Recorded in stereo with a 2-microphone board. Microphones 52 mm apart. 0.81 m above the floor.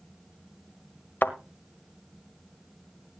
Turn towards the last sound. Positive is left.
turn(degrees=40)  # may be behind; listen again after turning